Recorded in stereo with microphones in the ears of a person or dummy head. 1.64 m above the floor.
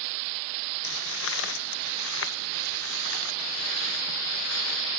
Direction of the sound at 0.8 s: 75° left (ahead or behind).